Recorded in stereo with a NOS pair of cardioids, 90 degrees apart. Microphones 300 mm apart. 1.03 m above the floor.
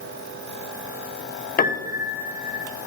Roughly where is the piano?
Ahead left.